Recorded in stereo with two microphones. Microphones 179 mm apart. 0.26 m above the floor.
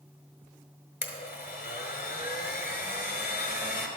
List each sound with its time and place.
1.0 s a blender: 55° left (ahead or behind), 0.9 m